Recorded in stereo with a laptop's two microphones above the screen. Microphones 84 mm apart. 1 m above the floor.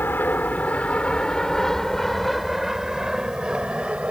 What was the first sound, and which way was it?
An aircraft, 25° left (ahead or behind).